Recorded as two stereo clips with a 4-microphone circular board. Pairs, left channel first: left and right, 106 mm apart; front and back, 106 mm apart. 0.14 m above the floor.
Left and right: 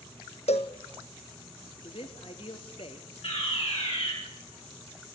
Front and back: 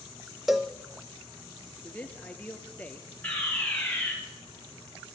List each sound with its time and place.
0.5 s a cowbell: 95° left, 1.3 m
1.8 s a man speaking: 75° left, 2.5 m
3.2 s a fire alarm: 70° left, 5 m